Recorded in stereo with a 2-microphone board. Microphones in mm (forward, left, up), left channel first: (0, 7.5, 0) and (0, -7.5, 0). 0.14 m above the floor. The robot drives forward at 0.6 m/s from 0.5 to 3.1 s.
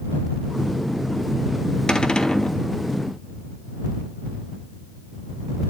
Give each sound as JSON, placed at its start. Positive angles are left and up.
{"t": 1.9, "sound": "a cupboard door", "side_deg": 70, "distance_m": 1.3}